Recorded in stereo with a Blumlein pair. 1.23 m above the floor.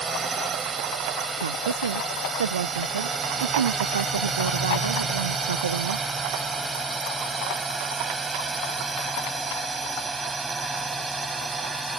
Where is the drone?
15° right; by 12.0 s 10° right.